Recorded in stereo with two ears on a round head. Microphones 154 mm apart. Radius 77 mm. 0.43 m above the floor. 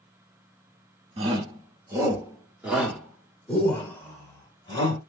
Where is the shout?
30° right (ahead or behind), 1.4 m; by 5.0 s 25° left (ahead or behind), 2 m.